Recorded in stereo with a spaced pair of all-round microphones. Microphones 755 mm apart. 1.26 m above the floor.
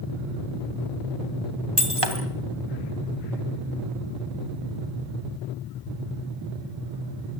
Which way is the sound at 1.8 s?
30° right (ahead or behind).